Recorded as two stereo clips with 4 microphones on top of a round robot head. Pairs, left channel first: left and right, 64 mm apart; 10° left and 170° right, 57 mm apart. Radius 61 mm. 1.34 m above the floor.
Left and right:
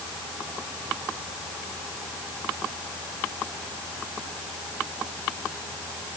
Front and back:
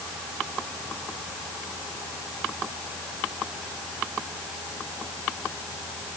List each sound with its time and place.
Only background noise.